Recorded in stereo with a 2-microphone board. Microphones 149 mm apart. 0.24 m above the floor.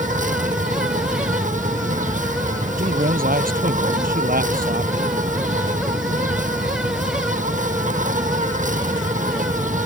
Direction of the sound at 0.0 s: 60° right (ahead or behind).